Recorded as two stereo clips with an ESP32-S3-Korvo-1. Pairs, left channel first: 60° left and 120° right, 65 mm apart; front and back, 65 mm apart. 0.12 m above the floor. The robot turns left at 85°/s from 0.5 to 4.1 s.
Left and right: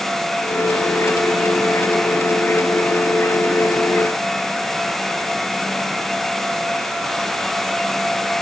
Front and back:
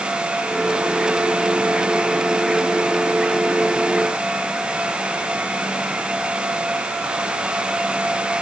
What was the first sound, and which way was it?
Only background noise.